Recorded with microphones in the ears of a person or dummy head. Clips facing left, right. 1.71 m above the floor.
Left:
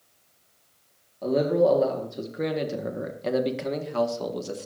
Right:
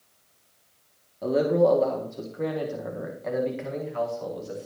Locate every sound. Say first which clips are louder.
1.2 s a man speaking: even; 5° right (ahead or behind), 1.8 m; by 4.7 s 70° left (ahead or behind), 2.5 m